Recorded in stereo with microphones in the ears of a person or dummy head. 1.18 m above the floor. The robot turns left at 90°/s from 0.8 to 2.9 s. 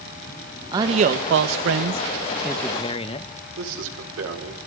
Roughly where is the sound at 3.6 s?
Right.